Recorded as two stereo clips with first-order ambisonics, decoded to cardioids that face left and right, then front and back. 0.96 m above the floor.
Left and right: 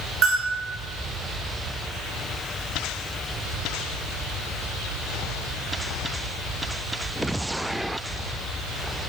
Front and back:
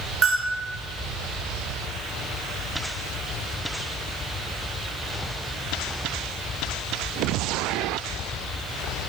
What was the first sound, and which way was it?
A bell, 135° right.